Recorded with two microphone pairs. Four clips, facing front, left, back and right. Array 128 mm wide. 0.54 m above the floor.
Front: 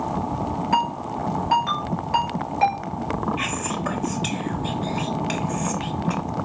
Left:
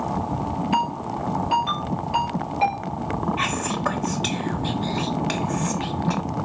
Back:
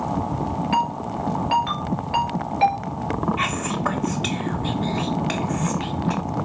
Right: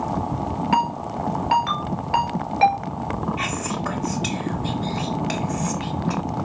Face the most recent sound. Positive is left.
turn(degrees=150)